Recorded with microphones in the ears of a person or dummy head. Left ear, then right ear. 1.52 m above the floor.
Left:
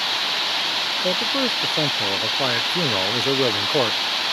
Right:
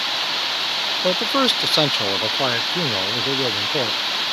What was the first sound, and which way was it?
A man speaking, 60° right (ahead or behind).